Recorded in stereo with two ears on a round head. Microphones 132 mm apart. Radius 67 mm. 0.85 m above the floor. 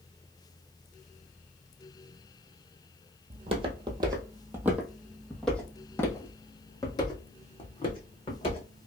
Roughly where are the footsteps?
Right.